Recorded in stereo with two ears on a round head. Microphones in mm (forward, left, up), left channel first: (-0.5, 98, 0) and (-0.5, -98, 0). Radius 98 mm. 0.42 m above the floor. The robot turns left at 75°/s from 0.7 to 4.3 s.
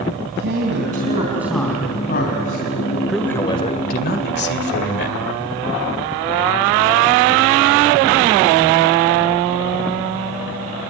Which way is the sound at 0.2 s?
120° right.